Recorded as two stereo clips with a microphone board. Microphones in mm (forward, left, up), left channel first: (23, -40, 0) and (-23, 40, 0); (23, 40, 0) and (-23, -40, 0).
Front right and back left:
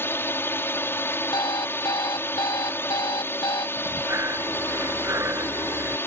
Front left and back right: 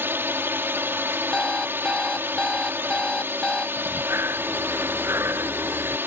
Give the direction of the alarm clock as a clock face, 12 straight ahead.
1 o'clock.